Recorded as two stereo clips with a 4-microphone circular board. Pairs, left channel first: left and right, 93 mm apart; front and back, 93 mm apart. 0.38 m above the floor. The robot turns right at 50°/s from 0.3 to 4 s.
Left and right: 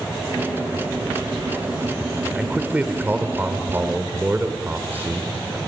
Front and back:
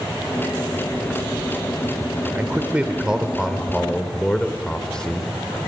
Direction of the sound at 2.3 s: 150° right.